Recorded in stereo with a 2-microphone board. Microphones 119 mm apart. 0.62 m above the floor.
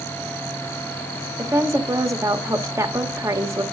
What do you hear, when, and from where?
1.4 s a woman speaking: 25° right (ahead or behind), 1.2 m